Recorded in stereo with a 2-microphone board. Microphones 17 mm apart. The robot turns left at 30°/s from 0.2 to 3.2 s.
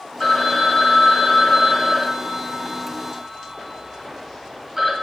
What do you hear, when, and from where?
0.2 s a phone ringing: 60° left, 1.5 m; by 4.9 s 30° right, 1.5 m